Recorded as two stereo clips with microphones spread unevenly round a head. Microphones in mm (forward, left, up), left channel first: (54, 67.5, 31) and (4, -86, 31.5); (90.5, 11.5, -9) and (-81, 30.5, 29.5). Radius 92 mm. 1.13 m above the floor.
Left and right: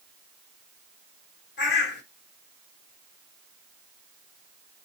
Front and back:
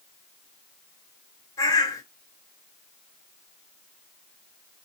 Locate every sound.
1.6 s a bird: 70° left, 1.2 m